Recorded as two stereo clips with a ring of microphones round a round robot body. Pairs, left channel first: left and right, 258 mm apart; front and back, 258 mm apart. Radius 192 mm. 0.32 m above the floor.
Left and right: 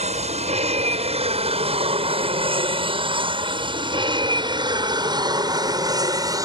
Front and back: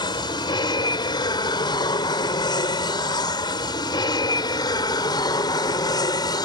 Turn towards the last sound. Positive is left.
turn(degrees=-45)